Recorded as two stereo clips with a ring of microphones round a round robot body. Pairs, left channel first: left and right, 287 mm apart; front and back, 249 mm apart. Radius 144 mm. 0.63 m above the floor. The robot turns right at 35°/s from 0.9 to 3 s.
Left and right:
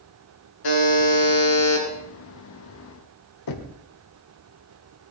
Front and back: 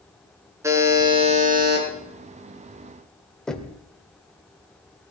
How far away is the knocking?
About 1.8 m.